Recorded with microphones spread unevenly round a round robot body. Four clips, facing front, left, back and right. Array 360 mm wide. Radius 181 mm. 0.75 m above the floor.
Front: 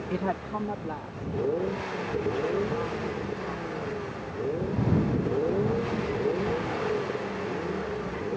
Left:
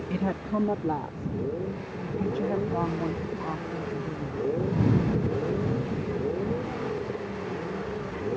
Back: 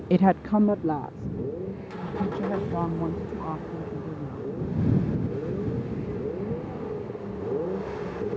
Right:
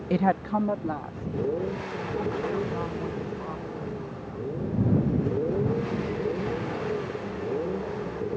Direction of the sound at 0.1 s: 155° right.